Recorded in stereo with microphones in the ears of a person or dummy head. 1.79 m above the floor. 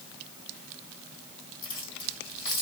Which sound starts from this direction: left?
Keys jangling, at 1.6 s.